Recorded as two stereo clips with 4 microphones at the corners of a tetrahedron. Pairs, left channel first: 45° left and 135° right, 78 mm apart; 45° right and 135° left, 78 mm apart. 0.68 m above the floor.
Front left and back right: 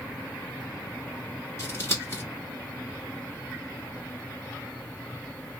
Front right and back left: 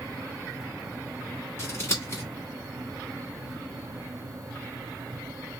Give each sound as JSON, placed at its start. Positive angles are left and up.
{"t": 1.6, "sound": "scissors", "azimuth_deg": 0, "distance_m": 1.4}